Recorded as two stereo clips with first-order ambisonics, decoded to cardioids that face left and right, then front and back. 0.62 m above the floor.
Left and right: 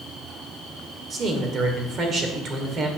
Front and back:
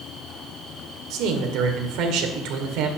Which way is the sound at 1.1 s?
150° right.